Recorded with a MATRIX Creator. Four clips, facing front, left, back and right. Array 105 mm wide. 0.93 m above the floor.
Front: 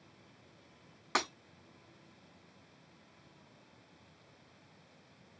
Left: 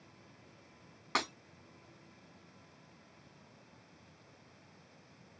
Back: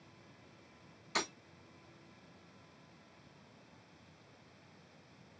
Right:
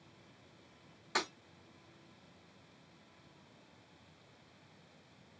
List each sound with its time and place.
1.1 s breaking glass: 35° left, 3 m